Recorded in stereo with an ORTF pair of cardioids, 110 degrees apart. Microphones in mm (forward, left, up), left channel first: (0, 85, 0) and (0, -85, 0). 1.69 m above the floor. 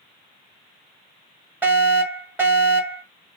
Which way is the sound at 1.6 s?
10° right.